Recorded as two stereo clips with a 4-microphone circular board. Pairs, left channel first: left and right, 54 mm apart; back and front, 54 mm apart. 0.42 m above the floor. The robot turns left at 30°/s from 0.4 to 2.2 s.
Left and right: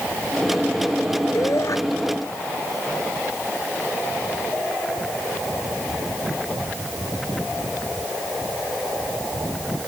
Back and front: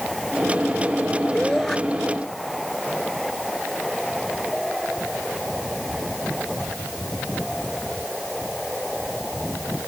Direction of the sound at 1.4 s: 105° left.